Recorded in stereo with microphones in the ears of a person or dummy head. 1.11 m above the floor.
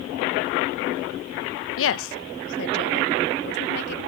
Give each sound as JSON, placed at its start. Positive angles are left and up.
{"t": 1.8, "sound": "a woman speaking", "side_deg": 60}